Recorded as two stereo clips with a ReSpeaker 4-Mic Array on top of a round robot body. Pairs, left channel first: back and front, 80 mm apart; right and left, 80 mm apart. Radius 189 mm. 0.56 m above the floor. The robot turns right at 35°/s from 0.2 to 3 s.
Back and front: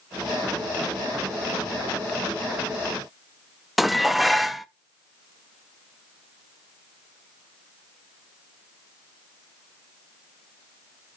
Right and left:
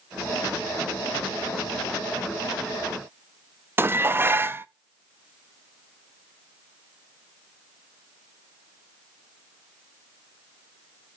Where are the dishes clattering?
90° left, 0.6 m.